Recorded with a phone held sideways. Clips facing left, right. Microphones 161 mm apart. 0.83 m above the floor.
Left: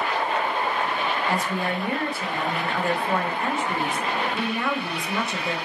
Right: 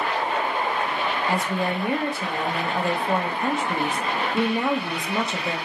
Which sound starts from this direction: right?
A woman speaking, at 1.3 s.